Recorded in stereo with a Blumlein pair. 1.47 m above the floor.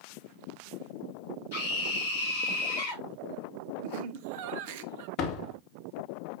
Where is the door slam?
40° left, 1.2 m.